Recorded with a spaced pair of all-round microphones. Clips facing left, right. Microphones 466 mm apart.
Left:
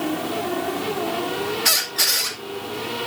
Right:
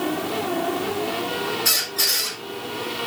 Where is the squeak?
80° left, 2.5 m.